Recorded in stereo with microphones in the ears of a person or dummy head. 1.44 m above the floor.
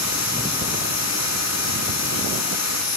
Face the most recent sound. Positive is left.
turn(degrees=85)